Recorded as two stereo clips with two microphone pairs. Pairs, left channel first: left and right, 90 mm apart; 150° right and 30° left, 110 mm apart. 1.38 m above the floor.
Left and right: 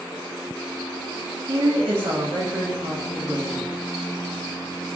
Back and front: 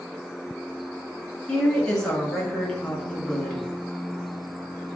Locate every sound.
1.5 s a woman speaking: 65° right, 1.1 m